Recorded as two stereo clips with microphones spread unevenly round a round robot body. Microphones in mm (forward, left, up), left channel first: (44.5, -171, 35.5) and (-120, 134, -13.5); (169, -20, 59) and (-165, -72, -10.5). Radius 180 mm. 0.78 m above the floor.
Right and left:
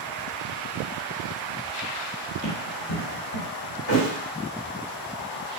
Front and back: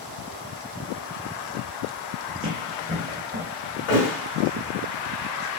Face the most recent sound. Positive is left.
turn(degrees=-5)